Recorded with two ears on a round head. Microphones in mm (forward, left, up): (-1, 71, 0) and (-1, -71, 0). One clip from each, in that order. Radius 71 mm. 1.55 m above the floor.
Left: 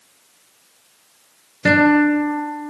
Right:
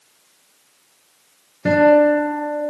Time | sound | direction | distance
1.6 | a guitar | 60° left (ahead or behind) | 8.5 m